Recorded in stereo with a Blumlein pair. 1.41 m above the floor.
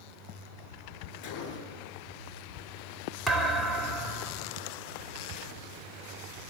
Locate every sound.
1.2 s a gunshot: 30° left, 8 m
3.3 s a thud: straight ahead, 2.5 m